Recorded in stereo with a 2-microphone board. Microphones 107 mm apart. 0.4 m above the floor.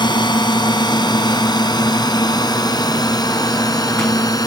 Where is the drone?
45° left (ahead or behind); by 4.5 s 35° left (ahead or behind).